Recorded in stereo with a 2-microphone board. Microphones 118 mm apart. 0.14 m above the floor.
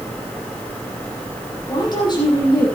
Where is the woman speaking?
40° left (ahead or behind), 6 m.